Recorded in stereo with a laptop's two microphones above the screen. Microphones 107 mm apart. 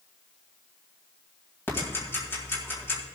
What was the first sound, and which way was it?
Ticking, 25° left (ahead or behind).